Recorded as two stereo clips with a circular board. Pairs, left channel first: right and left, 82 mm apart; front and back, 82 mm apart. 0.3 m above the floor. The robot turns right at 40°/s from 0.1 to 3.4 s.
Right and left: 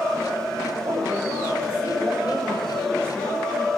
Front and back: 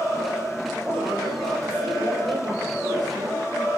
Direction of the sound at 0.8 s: 105° left.